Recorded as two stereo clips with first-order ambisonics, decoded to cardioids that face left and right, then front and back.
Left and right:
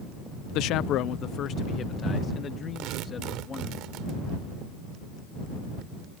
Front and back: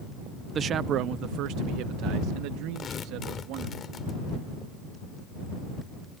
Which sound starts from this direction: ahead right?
Tearing paper, at 2.8 s.